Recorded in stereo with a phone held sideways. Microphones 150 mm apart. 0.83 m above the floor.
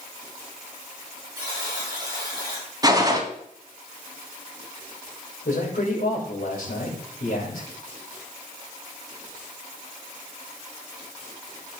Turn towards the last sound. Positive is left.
turn(degrees=75)  # may be behind; listen again after turning